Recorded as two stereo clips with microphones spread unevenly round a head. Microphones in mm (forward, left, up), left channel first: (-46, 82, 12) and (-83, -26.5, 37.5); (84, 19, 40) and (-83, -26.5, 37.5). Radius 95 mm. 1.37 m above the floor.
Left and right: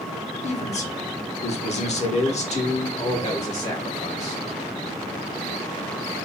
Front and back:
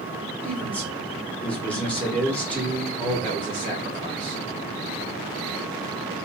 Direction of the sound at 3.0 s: 100° left.